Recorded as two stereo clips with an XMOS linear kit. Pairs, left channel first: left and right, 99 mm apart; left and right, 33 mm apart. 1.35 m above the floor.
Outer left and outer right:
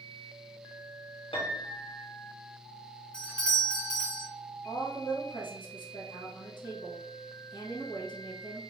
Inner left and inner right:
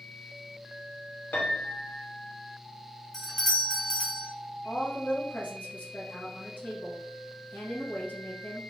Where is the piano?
65° left (ahead or behind), 0.9 m.